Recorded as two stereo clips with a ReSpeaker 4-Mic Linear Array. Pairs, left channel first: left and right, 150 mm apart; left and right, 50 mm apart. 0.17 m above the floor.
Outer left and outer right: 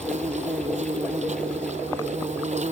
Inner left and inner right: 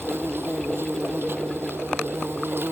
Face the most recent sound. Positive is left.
turn(degrees=-55)  # may be behind; listen again after turning